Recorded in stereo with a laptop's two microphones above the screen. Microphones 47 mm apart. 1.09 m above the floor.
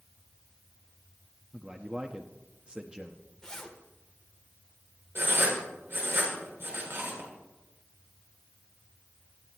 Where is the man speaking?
20° right (ahead or behind), 1.2 m.